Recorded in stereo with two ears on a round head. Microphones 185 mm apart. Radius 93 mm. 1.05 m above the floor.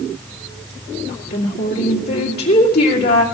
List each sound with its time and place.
1.1 s a woman speaking: 60° left (ahead or behind), 2.5 m